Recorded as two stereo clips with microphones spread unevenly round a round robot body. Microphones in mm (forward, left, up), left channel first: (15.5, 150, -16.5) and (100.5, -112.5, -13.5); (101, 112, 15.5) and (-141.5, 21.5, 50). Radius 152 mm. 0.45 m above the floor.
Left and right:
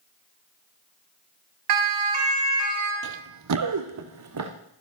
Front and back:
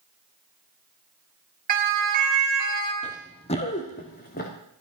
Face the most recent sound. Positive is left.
turn(degrees=-45)